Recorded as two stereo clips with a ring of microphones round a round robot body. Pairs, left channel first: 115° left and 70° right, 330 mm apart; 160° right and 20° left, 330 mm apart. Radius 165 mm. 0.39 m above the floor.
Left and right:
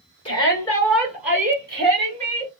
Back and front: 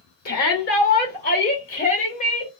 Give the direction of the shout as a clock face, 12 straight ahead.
6 o'clock.